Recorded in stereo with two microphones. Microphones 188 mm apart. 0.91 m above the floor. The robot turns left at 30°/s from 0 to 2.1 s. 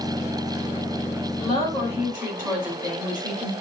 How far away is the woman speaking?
About 5 m.